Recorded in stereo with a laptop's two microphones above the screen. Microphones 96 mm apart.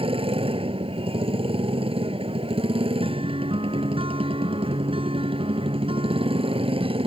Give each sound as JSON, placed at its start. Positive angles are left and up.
{"t": 0.0, "sound": "a motorcycle", "side_deg": -75}
{"t": 3.0, "sound": "a guitar", "side_deg": -70}